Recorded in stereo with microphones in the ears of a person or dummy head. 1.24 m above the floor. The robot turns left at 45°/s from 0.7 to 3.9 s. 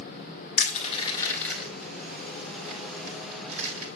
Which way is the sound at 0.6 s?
40° left (ahead or behind).